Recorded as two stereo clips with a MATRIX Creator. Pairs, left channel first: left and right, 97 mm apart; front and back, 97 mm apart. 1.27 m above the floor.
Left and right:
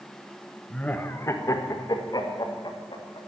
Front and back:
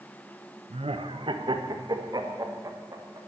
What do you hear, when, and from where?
0.7 s laughter: 170° left, 1.0 m; by 3.2 s 125° left, 2.5 m